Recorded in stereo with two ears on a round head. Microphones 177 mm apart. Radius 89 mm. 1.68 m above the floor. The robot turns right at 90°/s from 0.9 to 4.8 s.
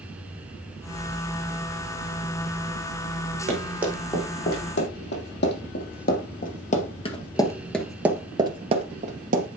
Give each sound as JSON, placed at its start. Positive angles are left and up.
{"t": 3.5, "sound": "running footsteps", "side_deg": -40, "distance_m": 5.5}